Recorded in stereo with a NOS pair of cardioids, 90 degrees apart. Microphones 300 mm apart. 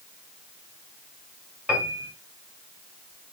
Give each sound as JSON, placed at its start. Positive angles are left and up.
{"t": 1.7, "sound": "a piano", "azimuth_deg": -5, "distance_m": 2.5}